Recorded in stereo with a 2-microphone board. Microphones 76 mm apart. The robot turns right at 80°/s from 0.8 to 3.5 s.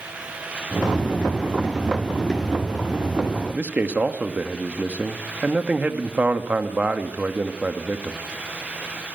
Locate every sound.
3.5 s a man speaking: 20° right (ahead or behind), 1.5 m